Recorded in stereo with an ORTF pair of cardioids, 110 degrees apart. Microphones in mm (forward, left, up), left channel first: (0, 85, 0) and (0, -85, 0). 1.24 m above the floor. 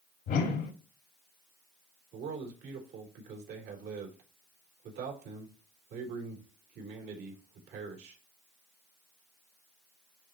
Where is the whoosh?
65° left, 2.0 m.